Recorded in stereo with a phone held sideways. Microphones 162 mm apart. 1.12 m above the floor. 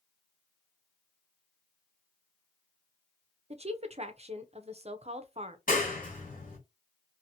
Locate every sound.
3.5 s a woman speaking: 40° right (ahead or behind), 0.6 m
5.7 s a clap: 55° left (ahead or behind), 1.4 m